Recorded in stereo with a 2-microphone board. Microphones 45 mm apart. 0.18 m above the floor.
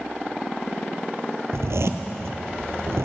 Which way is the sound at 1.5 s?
85° right.